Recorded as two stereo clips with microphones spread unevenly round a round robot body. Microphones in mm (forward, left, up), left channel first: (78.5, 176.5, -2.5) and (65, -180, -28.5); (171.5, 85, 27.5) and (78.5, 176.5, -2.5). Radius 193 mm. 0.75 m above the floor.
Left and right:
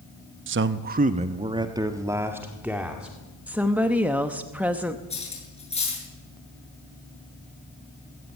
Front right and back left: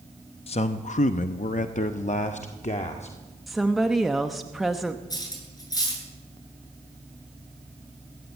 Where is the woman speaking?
165° right, 0.7 m.